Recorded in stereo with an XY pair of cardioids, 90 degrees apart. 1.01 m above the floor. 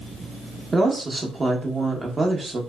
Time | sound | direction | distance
0.7 | a woman speaking | 30° right | 1.1 m